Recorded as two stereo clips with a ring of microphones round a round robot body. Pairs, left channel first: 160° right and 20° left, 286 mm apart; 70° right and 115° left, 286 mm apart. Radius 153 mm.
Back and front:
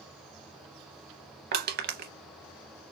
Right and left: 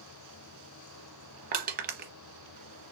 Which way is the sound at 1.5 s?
65° left.